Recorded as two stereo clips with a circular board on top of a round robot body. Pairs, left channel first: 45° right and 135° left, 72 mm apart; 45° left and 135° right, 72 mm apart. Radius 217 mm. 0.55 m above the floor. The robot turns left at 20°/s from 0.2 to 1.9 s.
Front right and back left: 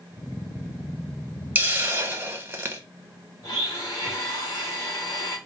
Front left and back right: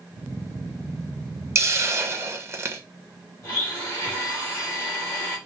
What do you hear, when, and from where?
1.6 s a hiss: 170° right, 1.1 m; by 2.8 s 175° right, 1.1 m
3.4 s a blender: 5° right, 3 m